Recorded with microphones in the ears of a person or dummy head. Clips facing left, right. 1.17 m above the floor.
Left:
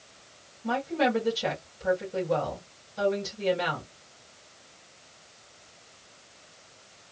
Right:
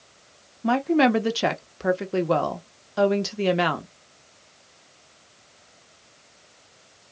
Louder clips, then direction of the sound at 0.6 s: Right 7 dB; 70° right (ahead or behind).